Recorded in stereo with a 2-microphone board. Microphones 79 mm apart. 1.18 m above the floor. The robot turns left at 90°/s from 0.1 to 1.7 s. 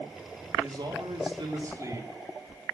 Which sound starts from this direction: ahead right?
A man speaking, at 0.6 s.